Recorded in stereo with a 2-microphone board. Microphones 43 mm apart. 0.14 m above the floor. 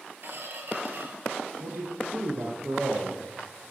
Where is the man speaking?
65° right (ahead or behind), 3.5 m.